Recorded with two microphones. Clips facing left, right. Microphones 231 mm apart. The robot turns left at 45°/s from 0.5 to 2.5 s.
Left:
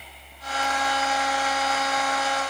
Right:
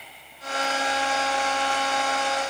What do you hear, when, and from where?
Only background noise.